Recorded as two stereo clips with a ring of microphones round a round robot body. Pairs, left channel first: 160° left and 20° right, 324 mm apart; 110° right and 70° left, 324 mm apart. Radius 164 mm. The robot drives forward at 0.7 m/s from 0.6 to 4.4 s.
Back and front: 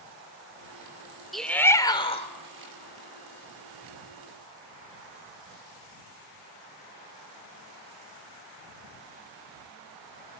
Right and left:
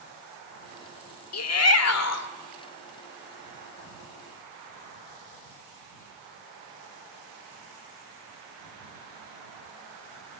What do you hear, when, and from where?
1.3 s a shout: 110° right, 1.7 m; by 2.3 s 135° right, 2.0 m